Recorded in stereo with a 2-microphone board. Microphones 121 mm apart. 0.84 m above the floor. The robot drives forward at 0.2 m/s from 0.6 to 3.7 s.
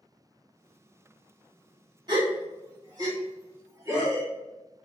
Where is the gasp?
35° right (ahead or behind), 1.2 m; by 4.3 s 30° right (ahead or behind), 1.4 m.